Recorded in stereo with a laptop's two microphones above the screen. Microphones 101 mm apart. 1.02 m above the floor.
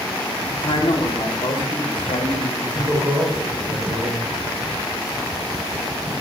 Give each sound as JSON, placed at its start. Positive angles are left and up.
{"t": 0.5, "sound": "a man speaking", "side_deg": 50, "distance_m": 2.0}
{"t": 2.6, "sound": "a man speaking", "side_deg": -30, "distance_m": 4.5}